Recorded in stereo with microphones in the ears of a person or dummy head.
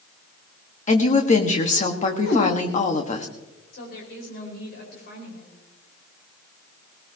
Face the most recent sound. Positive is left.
turn(degrees=55)  # may be behind; listen again after turning